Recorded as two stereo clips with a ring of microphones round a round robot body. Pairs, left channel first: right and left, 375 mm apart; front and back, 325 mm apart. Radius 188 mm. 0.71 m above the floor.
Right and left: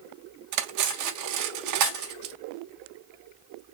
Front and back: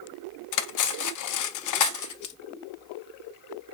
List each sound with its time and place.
0.5 s cutlery clinking: 40° left, 0.6 m